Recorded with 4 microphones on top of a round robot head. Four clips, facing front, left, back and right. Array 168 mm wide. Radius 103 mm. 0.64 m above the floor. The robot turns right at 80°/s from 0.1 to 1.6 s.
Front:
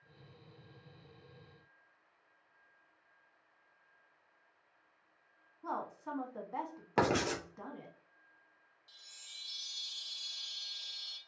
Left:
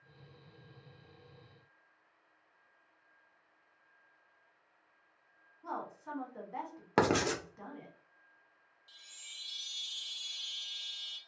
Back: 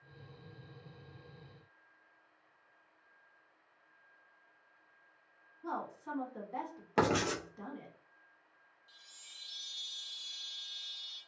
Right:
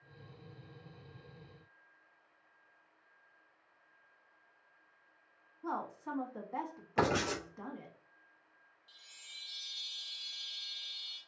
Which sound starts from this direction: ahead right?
A woman speaking, at 5.6 s.